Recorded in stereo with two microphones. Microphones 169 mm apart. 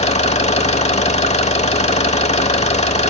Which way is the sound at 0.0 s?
35° left (ahead or behind).